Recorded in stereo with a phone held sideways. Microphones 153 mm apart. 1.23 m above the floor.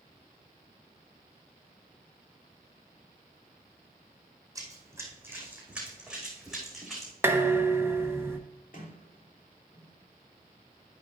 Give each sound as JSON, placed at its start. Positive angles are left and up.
{"t": 4.5, "sound": "running footsteps", "side_deg": -20, "distance_m": 4.0}
{"t": 7.2, "sound": "dishes clattering", "side_deg": -15, "distance_m": 1.0}
{"t": 8.7, "sound": "a sliding door", "side_deg": 65, "distance_m": 2.5}